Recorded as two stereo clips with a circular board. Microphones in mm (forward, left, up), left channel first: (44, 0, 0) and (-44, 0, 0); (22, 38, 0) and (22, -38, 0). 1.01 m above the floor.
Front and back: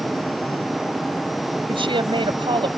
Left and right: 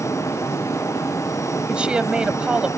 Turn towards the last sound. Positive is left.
turn(degrees=-165)